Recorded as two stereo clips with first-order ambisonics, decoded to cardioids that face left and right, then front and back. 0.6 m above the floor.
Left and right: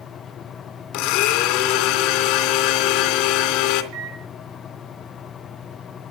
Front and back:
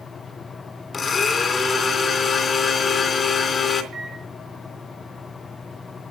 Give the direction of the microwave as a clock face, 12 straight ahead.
4 o'clock.